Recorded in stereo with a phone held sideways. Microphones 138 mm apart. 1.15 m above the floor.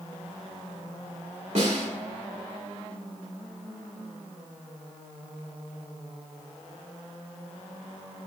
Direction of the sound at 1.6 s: 60° right (ahead or behind).